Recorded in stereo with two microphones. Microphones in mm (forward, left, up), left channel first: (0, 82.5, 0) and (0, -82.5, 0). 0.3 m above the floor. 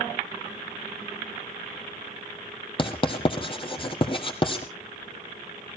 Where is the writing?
30° left (ahead or behind), 2 m.